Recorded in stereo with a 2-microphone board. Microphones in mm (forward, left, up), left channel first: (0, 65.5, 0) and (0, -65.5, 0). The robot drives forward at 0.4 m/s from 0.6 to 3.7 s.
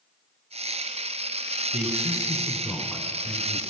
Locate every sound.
1.7 s a man speaking: 5° right (ahead or behind), 1.3 m